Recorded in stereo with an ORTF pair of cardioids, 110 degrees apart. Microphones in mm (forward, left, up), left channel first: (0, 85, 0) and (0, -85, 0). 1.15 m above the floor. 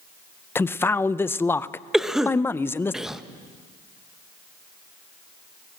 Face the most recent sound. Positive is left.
turn(degrees=-5)